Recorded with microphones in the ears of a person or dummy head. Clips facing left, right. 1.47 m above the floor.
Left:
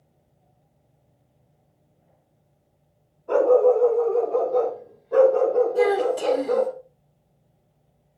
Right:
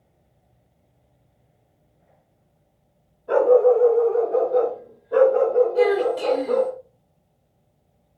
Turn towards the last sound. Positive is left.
turn(degrees=5)  # may be behind; listen again after turning